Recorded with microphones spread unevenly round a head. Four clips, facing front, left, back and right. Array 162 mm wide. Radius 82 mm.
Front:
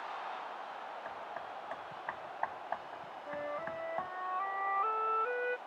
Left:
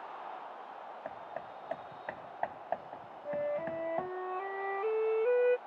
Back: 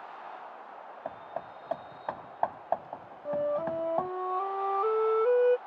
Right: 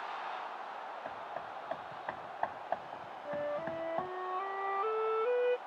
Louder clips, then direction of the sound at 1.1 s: Right 1 dB, back 4 dB; straight behind.